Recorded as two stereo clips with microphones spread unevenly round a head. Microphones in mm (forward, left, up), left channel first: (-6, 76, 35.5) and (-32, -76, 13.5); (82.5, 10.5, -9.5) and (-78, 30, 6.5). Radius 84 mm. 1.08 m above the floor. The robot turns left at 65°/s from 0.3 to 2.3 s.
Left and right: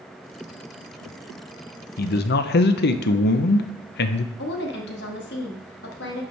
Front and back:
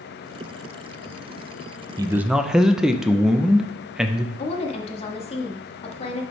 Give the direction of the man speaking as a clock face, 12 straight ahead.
9 o'clock.